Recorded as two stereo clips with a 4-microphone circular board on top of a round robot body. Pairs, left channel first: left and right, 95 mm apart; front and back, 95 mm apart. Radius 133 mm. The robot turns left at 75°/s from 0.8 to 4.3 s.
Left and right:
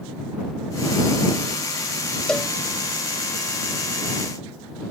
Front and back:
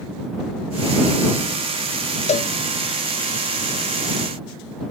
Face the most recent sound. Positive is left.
turn(degrees=-145)